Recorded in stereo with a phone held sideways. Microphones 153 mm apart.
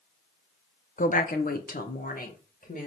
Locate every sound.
1.0 s a woman speaking: 65° left (ahead or behind), 0.6 m; by 2.9 s 70° left (ahead or behind), 1.8 m